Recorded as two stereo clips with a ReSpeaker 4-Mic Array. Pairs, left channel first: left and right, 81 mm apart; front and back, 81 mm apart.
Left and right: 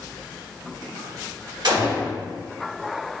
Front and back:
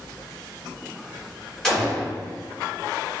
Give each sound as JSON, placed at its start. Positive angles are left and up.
{"t": 1.6, "sound": "a gunshot", "azimuth_deg": -85, "distance_m": 1.1}